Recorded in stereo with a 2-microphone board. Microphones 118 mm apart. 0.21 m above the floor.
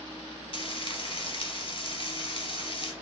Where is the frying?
50° left (ahead or behind), 0.7 m.